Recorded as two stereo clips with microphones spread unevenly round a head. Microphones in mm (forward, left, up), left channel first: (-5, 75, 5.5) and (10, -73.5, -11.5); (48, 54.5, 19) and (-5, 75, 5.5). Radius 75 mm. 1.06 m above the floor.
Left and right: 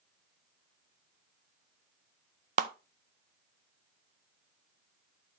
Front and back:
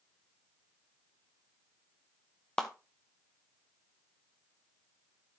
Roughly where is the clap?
Right.